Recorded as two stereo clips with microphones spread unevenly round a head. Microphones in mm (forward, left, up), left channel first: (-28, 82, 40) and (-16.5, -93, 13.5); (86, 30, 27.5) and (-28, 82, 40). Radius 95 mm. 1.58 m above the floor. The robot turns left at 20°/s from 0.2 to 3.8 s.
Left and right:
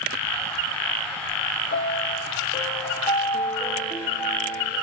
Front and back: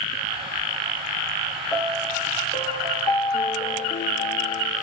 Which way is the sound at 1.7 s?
50° left.